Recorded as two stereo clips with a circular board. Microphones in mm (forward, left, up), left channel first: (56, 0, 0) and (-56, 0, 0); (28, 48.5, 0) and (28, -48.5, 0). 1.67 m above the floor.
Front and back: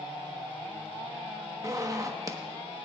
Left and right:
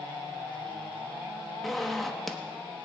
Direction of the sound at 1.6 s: 175° left.